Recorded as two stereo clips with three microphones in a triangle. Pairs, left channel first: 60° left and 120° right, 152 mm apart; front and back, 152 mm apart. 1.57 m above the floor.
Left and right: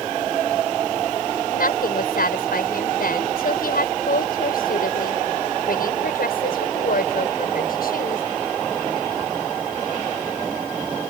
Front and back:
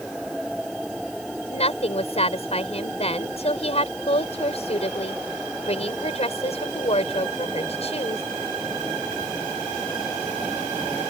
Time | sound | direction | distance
1.5 | a woman speaking | 45° left | ?